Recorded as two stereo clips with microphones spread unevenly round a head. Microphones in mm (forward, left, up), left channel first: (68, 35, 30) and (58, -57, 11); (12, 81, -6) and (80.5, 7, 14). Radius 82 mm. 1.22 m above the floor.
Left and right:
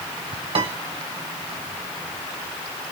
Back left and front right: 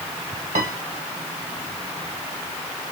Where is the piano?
95° right, 1.7 m.